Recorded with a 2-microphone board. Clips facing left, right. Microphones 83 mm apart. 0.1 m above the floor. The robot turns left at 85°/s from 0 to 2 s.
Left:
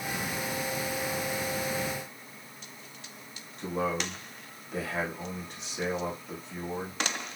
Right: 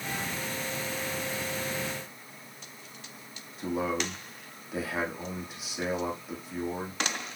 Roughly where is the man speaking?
Centre.